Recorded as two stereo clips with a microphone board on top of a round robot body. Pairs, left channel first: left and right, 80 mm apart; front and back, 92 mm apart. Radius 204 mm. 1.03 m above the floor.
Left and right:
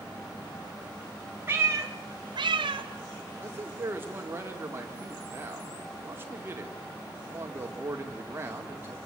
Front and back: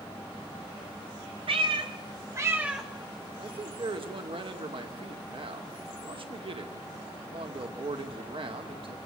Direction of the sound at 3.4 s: 155° right.